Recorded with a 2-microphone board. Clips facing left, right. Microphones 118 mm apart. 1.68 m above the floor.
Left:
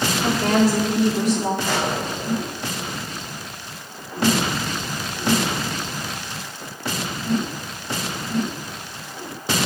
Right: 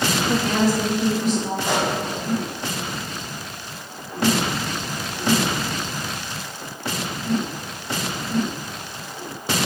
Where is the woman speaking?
75° left (ahead or behind), 3.5 m; by 1.5 s 80° left, 3.5 m.